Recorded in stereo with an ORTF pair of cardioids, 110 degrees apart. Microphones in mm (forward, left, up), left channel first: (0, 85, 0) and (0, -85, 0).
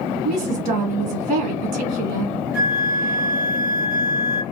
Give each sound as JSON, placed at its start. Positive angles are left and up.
{"t": 0.2, "sound": "a woman speaking", "azimuth_deg": -70, "distance_m": 1.2}
{"t": 2.5, "sound": "a flute", "azimuth_deg": -65, "distance_m": 1.0}